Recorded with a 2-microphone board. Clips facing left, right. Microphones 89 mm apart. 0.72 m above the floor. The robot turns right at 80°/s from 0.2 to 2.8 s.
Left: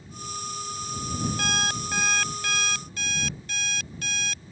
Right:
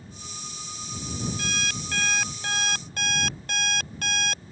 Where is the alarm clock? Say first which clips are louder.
Left 4 dB; 120° left; by 4.4 s 125° right.